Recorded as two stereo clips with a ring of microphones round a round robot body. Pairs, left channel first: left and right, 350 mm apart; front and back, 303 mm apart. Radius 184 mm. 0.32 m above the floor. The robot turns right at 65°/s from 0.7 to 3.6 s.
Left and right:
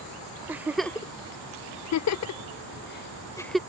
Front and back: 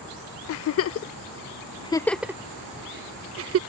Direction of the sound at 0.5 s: 5° right.